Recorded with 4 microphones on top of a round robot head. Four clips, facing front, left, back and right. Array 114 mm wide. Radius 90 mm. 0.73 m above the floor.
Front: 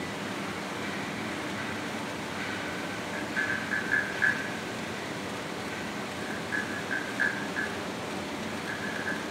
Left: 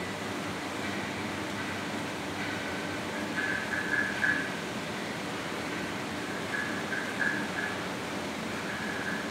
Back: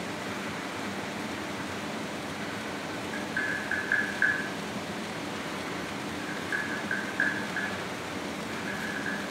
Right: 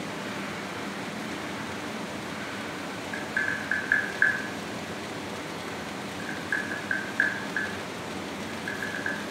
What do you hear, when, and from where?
3.1 s tapping: 120° right, 5 m